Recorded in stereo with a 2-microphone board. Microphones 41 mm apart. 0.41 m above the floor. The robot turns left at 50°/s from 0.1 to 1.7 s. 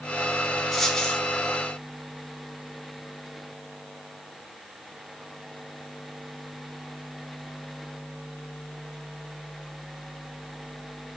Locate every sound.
0.7 s a dropped coin: centre (ahead or behind), 9 m; by 1.2 s 25° left (ahead or behind), 9 m